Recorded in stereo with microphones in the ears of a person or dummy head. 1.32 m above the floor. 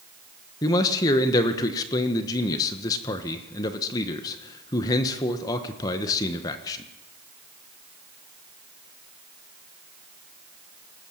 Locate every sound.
0.6 s a man speaking: 20° left (ahead or behind), 1.3 m